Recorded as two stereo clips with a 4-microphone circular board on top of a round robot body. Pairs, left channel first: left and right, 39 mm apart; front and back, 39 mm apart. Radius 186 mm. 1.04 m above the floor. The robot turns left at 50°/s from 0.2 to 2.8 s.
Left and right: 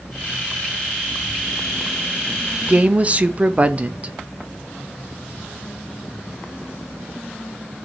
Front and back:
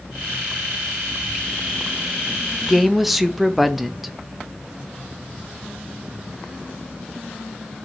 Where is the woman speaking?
90° right, 0.6 m; by 4.2 s 95° right, 0.6 m.